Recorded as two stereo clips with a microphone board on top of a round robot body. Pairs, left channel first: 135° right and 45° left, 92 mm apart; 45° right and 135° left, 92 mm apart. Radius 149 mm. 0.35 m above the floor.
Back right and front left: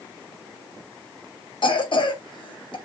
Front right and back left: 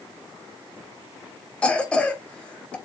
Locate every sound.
1.6 s a cough: 120° right, 2.5 m